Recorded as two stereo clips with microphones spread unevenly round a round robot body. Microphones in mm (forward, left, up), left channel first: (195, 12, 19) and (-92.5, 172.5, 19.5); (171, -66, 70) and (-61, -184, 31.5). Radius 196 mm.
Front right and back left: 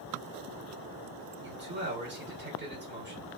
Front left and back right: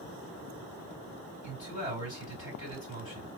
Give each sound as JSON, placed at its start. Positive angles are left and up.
{"t": 1.4, "sound": "a man speaking", "azimuth_deg": 95, "distance_m": 3.0}